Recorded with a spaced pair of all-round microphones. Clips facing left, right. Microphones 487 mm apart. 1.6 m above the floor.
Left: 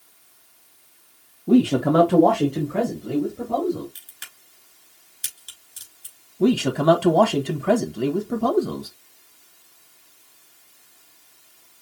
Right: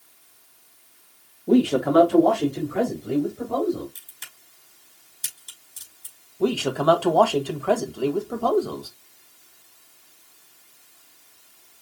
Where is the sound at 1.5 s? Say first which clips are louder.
Left 2 dB; 25° left (ahead or behind), 1.0 m; by 3.9 s 60° left (ahead or behind), 3 m.